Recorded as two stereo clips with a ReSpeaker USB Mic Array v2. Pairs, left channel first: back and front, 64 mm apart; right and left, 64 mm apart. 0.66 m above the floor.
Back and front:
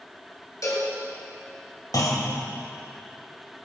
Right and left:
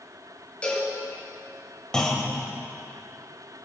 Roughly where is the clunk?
Behind.